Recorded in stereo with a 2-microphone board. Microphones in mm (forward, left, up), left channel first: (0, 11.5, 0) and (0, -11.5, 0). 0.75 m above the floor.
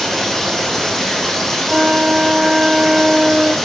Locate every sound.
0.0 s running water: 10° left (ahead or behind), 5 m
1.7 s a flute: 30° right (ahead or behind), 1.1 m